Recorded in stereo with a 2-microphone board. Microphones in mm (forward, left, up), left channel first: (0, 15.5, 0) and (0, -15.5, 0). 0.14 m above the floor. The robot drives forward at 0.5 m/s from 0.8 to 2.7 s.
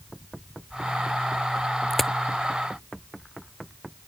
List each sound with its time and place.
1.9 s a crack: 5° left (ahead or behind)